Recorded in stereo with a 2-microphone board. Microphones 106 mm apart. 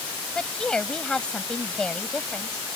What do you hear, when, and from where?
0.3 s a woman speaking: 10° left (ahead or behind)